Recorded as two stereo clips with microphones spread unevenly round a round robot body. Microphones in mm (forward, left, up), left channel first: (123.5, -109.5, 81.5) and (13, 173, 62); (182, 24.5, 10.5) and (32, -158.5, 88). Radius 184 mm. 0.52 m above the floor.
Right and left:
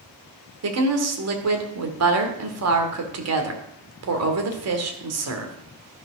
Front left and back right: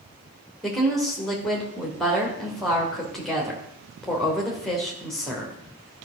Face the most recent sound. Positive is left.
turn(degrees=125)